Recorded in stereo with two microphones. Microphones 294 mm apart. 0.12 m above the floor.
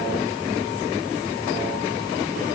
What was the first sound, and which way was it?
Only background noise.